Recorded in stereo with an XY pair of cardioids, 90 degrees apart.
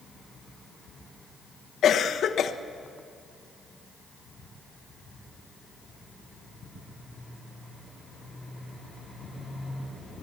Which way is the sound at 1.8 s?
65° left.